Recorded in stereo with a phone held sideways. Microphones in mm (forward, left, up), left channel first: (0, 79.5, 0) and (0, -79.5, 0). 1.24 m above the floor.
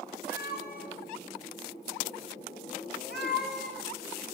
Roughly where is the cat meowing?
Left.